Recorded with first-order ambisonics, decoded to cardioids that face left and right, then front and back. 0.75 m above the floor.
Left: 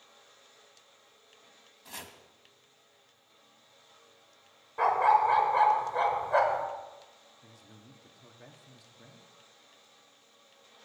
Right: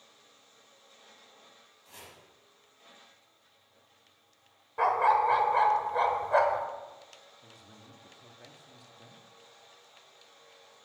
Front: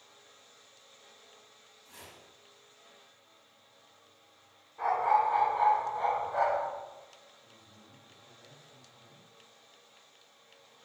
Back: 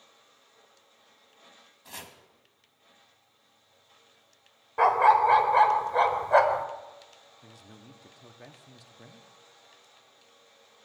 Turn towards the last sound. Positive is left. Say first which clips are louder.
# right 2 dB, back 5 dB
turn(degrees=175)